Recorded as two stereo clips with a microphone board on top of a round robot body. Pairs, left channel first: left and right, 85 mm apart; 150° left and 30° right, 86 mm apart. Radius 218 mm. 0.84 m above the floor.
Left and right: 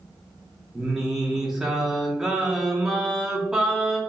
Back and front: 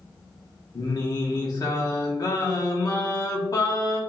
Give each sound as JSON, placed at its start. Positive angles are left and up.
{"t": 0.8, "sound": "singing", "azimuth_deg": -175, "distance_m": 1.3}